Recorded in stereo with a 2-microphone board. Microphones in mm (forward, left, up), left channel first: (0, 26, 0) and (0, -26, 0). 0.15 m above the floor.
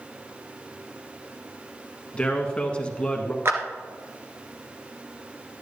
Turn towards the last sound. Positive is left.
turn(degrees=-55)  # may be behind; listen again after turning